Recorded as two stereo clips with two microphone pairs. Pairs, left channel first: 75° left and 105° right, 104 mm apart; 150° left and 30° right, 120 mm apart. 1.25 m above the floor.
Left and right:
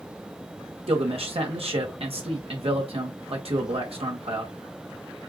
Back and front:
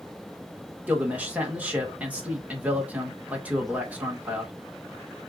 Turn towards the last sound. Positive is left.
turn(degrees=-110)